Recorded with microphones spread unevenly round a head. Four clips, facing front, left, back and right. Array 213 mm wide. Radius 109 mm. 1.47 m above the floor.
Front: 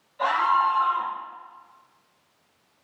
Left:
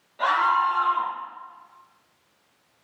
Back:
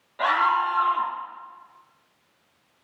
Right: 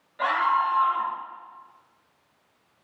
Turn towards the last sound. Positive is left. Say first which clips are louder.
# left 2 dB, even
turn(degrees=170)